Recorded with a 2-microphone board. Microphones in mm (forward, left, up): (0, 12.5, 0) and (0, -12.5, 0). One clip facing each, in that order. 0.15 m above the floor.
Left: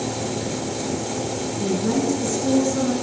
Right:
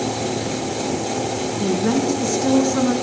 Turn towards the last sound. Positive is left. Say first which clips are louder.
# right 2 dB
turn(degrees=-45)  # may be behind; listen again after turning